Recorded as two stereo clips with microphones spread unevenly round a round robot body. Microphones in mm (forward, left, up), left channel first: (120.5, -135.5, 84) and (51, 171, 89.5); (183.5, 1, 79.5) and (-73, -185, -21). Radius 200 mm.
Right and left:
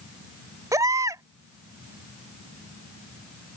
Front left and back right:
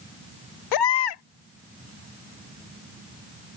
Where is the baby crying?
20° left.